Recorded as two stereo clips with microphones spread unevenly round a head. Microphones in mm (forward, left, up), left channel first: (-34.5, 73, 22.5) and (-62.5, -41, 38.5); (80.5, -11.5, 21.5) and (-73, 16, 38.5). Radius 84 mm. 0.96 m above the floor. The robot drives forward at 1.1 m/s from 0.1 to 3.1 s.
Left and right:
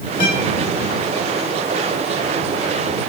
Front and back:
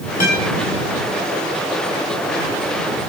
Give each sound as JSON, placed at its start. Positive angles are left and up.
{"t": 0.2, "sound": "a guitar", "azimuth_deg": 25, "distance_m": 4.5}